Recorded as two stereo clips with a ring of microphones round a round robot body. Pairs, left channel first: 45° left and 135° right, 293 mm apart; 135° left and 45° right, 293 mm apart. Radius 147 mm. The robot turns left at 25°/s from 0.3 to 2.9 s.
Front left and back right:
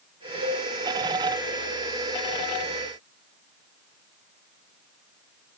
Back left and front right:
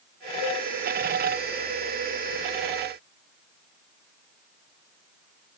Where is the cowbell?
165° left, 7.5 m; by 0.7 s 160° left, 7.5 m.